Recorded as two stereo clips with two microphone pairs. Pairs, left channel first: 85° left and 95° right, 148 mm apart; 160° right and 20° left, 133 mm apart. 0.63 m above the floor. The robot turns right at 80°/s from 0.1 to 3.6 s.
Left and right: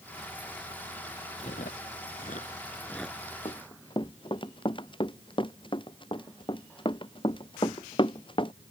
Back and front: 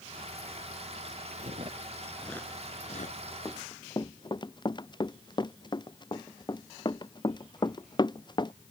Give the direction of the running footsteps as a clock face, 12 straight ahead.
8 o'clock.